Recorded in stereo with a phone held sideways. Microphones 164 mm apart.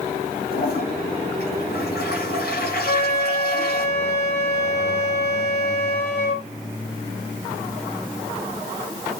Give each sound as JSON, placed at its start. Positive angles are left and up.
{"t": 0.5, "sound": "a toilet flushing", "side_deg": 80, "distance_m": 7.5}
{"t": 2.9, "sound": "a flute", "side_deg": 80, "distance_m": 3.0}